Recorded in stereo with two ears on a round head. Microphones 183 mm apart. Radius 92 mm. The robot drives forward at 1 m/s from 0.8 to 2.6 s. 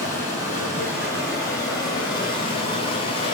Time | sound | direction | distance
0.0 | running water | 15° left (ahead or behind) | 3.5 m